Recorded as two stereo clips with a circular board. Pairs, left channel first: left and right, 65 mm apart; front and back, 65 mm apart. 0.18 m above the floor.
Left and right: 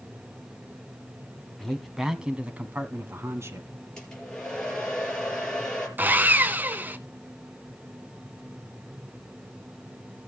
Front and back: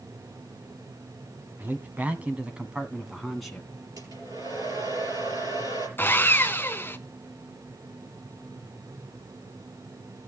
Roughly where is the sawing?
Ahead right.